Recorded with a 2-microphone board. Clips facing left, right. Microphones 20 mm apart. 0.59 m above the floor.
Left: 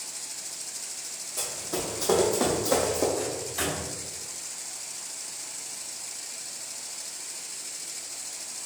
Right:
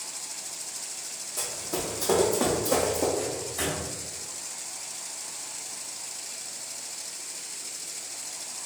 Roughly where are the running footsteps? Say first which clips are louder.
Even; centre.